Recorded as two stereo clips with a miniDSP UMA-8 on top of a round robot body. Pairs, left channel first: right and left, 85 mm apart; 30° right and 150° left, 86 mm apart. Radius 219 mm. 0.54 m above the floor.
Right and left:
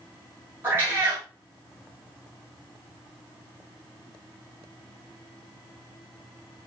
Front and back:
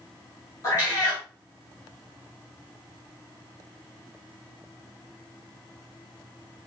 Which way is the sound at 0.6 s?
25° left.